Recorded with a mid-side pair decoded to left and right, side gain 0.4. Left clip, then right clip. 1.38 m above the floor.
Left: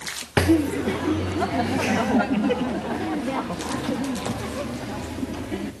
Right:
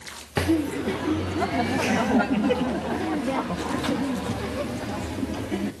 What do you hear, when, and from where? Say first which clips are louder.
0.4 s laughter: left 4 dB; 30° left, 0.6 m; by 5.7 s 10° right, 3.5 m